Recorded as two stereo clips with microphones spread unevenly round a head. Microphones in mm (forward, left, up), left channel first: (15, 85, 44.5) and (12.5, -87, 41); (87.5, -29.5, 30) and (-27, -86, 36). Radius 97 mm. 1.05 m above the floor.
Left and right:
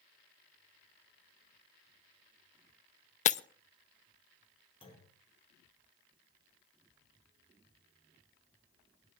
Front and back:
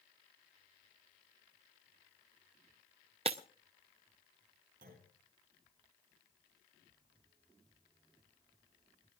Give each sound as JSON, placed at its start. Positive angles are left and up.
{"t": 3.2, "sound": "breaking glass", "azimuth_deg": 145, "distance_m": 0.5}
{"t": 4.8, "sound": "a clunk", "azimuth_deg": 155, "distance_m": 5.5}